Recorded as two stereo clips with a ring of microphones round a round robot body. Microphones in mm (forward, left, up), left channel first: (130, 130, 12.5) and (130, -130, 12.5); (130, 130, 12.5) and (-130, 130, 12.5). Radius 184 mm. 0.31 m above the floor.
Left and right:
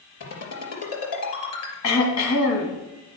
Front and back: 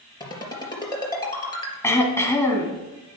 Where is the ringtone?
75° left, 3 m.